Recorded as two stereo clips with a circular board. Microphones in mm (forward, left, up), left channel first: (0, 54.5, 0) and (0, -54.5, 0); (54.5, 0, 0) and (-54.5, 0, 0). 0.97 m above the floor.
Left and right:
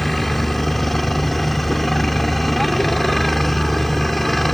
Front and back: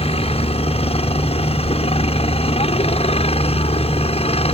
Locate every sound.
0.0 s a helicopter: straight ahead